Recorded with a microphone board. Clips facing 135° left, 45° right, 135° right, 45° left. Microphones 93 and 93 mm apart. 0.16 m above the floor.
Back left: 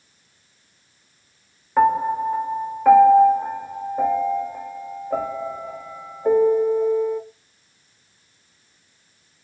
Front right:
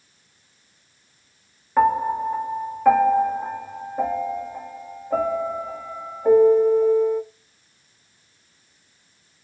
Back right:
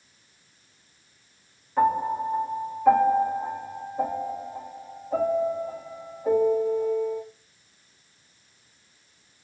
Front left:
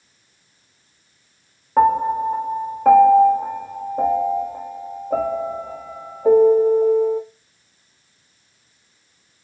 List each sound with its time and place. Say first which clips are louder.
1.8 s a piano: back left 1 dB, front left 7 dB; 45° left, 0.6 m